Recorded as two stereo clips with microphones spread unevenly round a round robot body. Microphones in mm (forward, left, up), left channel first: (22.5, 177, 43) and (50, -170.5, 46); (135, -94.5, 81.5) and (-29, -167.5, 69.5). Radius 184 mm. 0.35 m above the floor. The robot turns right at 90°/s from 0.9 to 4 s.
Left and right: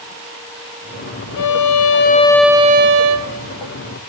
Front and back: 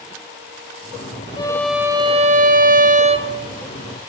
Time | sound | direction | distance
1.4 | a violin | 90° left | 1.3 m